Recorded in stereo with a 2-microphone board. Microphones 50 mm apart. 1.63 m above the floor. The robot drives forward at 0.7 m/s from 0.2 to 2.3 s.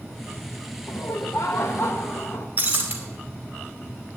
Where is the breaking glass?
35° right (ahead or behind), 2.5 m.